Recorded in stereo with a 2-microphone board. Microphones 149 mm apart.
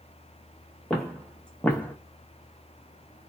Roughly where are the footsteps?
Centre.